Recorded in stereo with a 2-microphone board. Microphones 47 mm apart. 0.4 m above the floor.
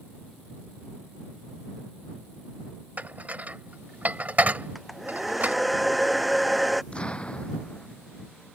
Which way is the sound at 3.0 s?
40° right (ahead or behind).